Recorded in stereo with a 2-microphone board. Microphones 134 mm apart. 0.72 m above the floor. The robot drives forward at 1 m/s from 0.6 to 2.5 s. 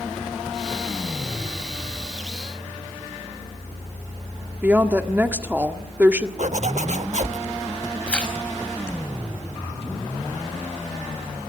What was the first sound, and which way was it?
A woman speaking, 15° right (ahead or behind).